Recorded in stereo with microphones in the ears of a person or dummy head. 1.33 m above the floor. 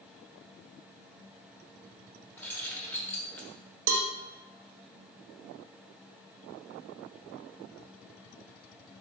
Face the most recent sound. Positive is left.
turn(degrees=-65)  # may be behind; listen again after turning